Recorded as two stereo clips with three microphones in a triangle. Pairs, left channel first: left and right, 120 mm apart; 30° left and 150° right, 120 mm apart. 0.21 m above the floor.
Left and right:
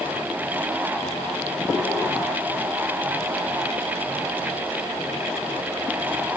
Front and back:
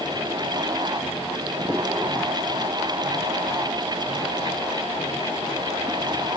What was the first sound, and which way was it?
Only background noise.